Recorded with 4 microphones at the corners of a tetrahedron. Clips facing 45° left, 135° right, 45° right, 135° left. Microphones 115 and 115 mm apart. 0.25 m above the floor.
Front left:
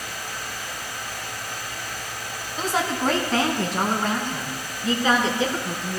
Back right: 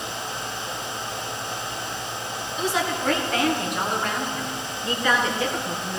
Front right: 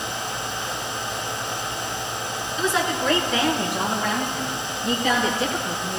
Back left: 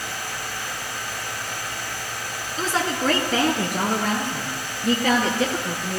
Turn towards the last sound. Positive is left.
turn(degrees=115)